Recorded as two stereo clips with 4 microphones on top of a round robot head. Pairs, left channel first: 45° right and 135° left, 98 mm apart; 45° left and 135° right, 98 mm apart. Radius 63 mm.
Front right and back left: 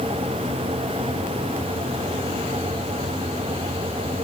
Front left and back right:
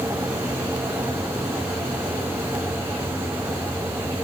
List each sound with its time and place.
Only background noise.